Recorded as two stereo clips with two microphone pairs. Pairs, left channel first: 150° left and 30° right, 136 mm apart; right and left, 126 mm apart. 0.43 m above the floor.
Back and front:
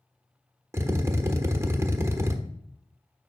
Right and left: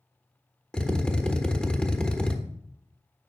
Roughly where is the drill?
Ahead right.